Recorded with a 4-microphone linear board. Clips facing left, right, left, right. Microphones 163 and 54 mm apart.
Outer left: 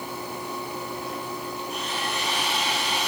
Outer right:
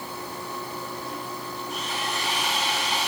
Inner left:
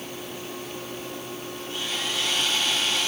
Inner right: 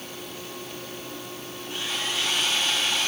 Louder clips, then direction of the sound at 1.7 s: Outer right 1 dB, inner right 1 dB; 25° right (ahead or behind).